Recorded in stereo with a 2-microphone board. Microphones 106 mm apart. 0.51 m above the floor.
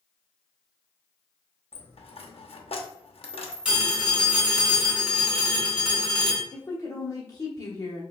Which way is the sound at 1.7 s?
65° left (ahead or behind).